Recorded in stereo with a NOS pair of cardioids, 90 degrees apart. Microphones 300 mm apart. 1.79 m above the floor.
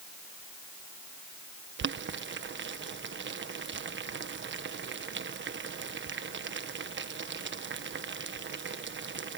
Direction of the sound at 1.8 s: 40° right.